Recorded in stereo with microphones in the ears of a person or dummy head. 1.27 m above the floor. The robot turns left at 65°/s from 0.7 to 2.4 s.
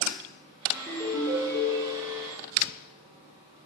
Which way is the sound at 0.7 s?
175° right.